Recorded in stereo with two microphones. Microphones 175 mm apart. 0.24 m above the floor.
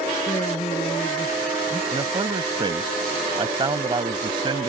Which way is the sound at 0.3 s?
30° left (ahead or behind).